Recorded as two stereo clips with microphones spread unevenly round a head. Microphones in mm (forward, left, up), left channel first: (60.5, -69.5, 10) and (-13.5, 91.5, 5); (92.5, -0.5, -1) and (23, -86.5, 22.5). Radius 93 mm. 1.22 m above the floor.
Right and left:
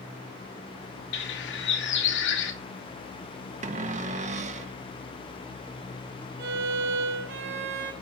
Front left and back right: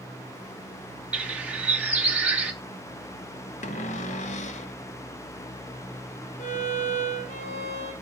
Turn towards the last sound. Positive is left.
turn(degrees=100)